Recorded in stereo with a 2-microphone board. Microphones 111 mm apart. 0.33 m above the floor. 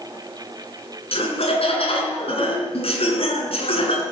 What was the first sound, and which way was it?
Laughter, 70° left (ahead or behind).